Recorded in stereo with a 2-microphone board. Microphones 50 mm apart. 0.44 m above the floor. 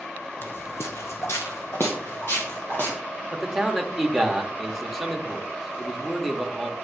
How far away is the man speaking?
About 1.0 m.